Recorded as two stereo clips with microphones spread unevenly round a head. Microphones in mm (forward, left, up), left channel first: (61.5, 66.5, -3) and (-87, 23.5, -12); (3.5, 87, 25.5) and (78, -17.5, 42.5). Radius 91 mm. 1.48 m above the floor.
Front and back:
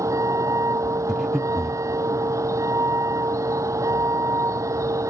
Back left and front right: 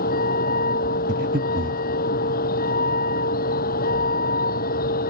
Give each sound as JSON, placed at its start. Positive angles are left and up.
{"t": 0.0, "sound": "a vehicle", "azimuth_deg": 125}
{"t": 1.1, "sound": "breathing", "azimuth_deg": -75}